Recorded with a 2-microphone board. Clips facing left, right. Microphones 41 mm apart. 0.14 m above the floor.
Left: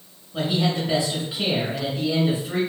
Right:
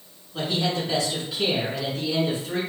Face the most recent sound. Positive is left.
turn(degrees=20)  # may be behind; listen again after turning